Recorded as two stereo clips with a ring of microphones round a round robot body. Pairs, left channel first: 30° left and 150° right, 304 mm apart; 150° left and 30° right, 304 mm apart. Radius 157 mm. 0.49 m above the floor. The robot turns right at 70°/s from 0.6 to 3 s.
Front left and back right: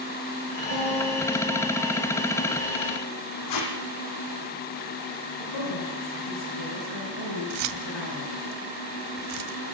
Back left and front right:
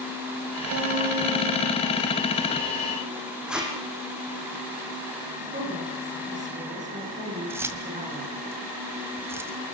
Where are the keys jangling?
110° right, 1.9 m.